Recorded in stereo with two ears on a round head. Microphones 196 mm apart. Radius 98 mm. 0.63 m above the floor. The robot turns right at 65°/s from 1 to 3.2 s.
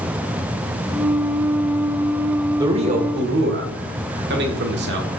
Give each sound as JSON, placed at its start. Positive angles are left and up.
{"t": 2.6, "sound": "a man speaking", "azimuth_deg": -165, "distance_m": 1.5}